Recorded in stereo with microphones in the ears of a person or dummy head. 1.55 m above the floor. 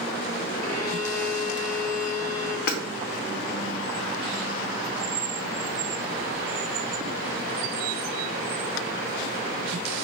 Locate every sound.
0.6 s a violin: 15° left (ahead or behind), 0.7 m
2.7 s hammering: 60° left (ahead or behind), 0.8 m